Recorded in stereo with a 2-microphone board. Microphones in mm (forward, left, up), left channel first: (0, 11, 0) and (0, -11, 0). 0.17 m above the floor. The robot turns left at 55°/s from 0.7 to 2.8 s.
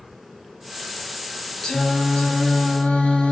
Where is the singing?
145° left, 2.5 m; by 3.3 s 80° left, 2.5 m.